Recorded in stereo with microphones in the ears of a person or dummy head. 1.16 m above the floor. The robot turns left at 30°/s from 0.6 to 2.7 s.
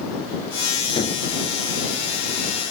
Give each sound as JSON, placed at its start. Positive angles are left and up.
{"t": 1.0, "sound": "a gunshot", "side_deg": 25}